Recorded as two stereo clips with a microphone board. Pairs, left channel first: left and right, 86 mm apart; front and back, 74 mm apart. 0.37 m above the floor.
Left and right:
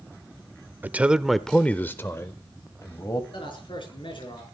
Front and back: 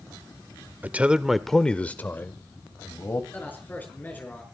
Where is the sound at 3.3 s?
65° left, 6 m.